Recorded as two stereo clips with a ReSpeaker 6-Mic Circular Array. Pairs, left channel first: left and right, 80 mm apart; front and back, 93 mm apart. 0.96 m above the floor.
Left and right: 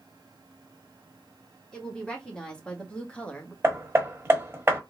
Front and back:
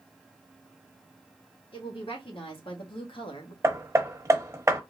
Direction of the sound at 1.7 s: 10° left.